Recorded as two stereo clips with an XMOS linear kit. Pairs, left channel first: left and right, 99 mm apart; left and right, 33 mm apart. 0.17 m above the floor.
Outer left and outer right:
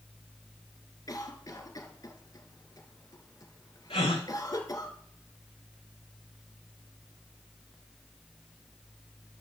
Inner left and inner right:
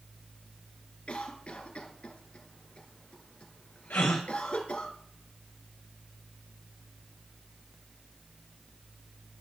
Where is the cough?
40° left (ahead or behind), 2 m.